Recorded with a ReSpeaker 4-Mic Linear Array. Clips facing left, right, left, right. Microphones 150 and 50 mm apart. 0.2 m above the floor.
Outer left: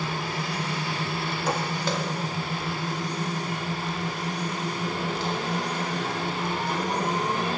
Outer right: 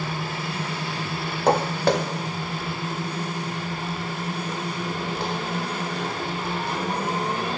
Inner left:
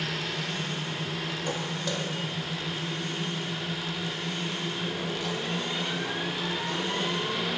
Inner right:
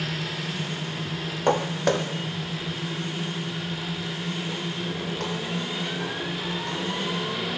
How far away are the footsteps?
About 0.5 m.